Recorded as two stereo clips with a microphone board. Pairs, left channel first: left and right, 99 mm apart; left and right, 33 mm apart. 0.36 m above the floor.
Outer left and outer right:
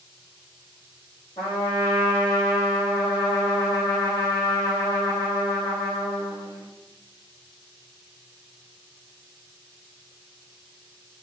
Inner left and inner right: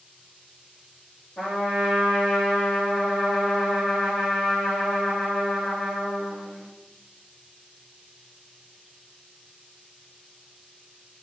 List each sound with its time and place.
1.4 s a trumpet: 40° left (ahead or behind), 5 m